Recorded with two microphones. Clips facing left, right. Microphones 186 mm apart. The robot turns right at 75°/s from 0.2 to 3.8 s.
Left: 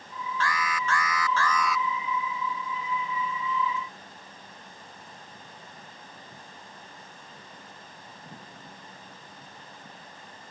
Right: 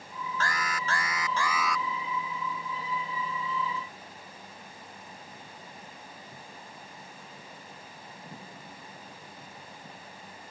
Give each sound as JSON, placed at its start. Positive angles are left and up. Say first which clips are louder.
{"t": 0.4, "sound": "an alarm", "louder": "left 3 dB", "azimuth_deg": -95}